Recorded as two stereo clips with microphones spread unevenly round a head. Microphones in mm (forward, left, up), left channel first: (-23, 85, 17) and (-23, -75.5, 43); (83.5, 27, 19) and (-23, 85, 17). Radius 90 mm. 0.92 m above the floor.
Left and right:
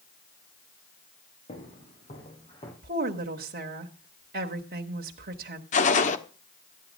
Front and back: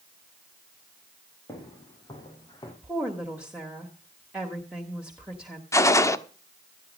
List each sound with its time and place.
1.5 s footsteps: 35° left, 6.5 m; by 2.7 s 25° left, 6 m
2.8 s a woman speaking: 125° right, 1.5 m
5.7 s a gunshot: 40° left, 1.2 m